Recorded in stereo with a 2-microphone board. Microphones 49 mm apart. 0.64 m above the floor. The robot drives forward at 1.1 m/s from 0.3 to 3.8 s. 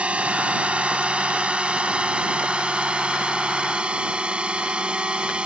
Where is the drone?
25° right (ahead or behind); by 5.5 s 20° right (ahead or behind).